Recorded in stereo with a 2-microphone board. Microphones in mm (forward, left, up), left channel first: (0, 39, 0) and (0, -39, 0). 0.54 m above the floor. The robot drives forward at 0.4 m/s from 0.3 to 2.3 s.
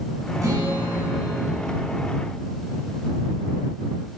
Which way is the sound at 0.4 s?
40° right (ahead or behind).